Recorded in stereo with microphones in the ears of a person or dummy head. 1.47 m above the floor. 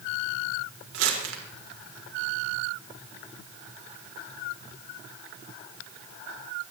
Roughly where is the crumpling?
Right.